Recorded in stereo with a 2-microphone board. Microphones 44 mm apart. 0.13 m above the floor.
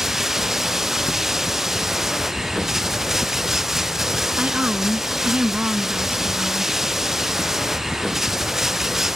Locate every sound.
0.0 s running water: 10° right (ahead or behind)
4.4 s a woman speaking: 30° right (ahead or behind)